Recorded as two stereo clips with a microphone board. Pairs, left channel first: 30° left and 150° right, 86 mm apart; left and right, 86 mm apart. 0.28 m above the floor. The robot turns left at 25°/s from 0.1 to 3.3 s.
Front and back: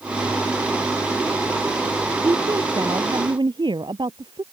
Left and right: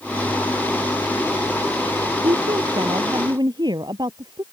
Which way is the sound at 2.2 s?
95° right.